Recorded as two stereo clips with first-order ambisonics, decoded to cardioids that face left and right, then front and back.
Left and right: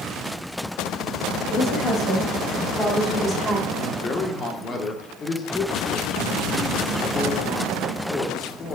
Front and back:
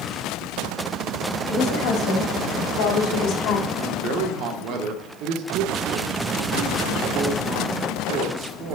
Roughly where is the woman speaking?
Ahead.